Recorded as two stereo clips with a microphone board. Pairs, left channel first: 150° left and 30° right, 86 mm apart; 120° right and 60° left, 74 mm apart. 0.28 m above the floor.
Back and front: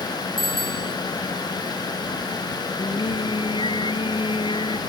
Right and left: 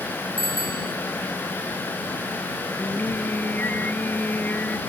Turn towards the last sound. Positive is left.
turn(degrees=175)